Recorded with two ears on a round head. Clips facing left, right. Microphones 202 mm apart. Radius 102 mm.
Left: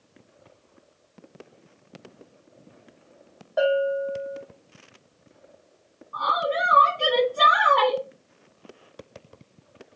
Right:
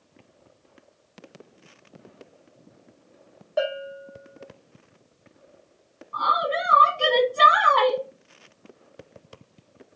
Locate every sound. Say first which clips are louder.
3.6 s a bell: left 6 dB; 30° right (ahead or behind), 1.3 m
6.1 s a woman speaking: left 1 dB; 40° right (ahead or behind), 0.7 m